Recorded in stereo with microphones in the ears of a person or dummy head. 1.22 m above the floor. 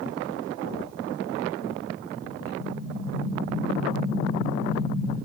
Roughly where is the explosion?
Left.